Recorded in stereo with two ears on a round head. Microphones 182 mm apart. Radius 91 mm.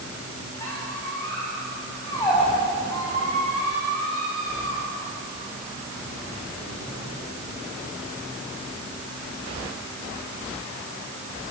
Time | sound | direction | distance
0.6 | a squeak | 15° left (ahead or behind) | 10 m